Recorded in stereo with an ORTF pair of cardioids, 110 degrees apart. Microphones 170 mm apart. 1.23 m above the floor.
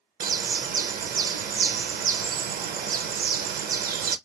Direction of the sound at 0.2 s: 60° right.